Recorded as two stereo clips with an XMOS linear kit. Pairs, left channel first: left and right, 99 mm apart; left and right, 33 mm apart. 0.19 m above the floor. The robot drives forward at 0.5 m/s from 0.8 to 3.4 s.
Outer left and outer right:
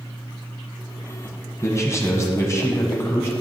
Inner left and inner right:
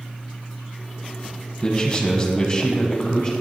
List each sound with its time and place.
1.6 s a man speaking: 30° left (ahead or behind), 1.3 m; by 3.3 s 25° left (ahead or behind), 1.5 m